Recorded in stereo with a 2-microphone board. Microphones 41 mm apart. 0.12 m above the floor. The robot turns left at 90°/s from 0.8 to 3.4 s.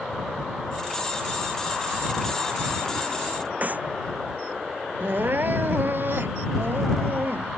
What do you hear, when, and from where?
3.6 s a clap: 45° right (ahead or behind)
5.0 s crying: 60° right (ahead or behind)